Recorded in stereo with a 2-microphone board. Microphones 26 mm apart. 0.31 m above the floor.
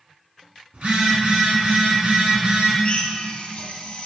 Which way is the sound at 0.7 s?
70° right (ahead or behind).